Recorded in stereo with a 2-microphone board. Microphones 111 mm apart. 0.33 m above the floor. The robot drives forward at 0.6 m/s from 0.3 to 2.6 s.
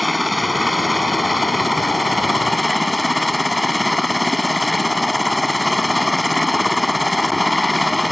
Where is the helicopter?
Centre (ahead or behind).